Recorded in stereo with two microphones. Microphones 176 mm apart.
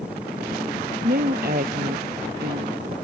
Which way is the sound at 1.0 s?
60° right (ahead or behind).